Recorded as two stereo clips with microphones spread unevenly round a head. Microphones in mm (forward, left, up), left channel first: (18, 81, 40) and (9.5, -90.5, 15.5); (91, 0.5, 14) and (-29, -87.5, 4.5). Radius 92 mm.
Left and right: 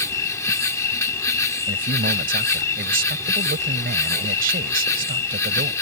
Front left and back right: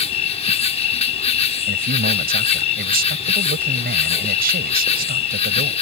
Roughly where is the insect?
Ahead left.